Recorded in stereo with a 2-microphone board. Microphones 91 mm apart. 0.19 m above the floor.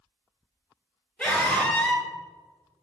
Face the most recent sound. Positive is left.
turn(degrees=0)  # may be behind; listen again after turning